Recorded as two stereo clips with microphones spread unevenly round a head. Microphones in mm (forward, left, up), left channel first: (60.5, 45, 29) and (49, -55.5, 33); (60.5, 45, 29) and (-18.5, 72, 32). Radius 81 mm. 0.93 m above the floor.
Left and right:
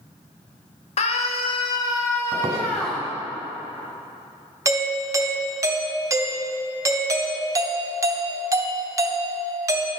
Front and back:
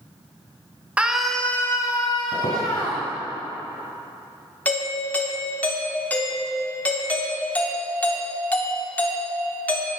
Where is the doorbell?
70° right, 0.8 m.